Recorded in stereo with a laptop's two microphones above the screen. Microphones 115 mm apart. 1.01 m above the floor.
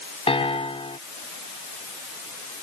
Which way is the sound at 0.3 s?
60° left (ahead or behind).